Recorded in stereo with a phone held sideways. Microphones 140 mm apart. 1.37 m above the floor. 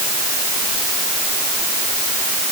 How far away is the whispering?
I don't hear whispering.